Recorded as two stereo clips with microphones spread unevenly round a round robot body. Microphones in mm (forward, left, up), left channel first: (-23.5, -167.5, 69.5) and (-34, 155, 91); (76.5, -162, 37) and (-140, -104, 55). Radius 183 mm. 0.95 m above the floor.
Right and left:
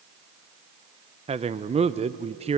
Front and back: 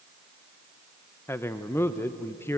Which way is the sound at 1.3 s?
35° left.